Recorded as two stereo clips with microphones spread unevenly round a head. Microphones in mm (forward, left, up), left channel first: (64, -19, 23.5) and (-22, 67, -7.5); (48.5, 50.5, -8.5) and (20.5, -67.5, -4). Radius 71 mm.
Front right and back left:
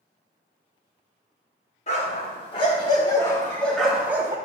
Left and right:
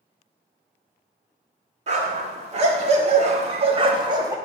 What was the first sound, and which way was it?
A dog barking, 75° right.